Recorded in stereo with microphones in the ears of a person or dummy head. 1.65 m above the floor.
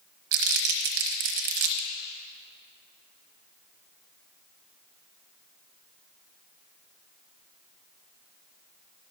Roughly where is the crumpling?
Right.